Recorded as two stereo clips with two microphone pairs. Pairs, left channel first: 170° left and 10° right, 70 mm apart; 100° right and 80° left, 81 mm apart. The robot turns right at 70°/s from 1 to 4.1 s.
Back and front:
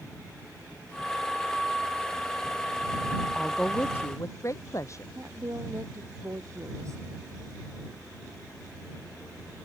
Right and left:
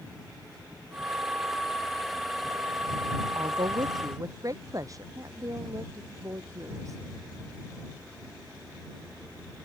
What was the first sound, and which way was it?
A woman speaking, 75° left.